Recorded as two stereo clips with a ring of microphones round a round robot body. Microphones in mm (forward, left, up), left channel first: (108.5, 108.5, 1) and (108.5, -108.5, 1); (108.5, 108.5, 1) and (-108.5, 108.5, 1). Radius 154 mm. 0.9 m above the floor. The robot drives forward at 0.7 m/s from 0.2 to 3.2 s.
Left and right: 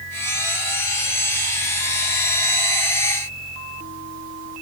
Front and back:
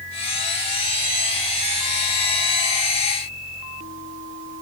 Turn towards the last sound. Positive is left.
No sound to turn to.